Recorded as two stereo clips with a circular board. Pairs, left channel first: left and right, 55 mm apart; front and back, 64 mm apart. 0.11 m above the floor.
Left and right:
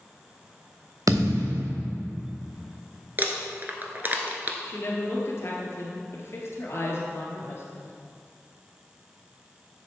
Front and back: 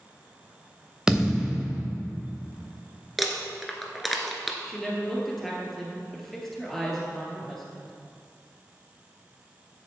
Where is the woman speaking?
85° left, 1.9 m.